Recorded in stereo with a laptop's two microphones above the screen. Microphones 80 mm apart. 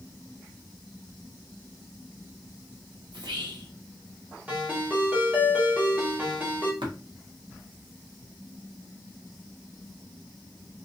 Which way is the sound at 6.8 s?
75° right (ahead or behind).